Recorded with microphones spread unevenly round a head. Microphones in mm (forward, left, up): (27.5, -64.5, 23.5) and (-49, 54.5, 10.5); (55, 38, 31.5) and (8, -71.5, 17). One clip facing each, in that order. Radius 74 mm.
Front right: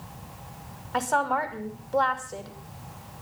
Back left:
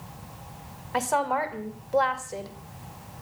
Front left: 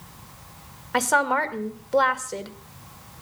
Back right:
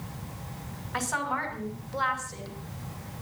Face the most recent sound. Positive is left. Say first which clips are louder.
# even, front left 9 dB
turn(degrees=40)